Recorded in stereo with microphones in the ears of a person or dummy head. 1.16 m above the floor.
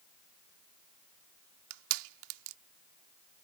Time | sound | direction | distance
1.7 | crushing | 80° right | ?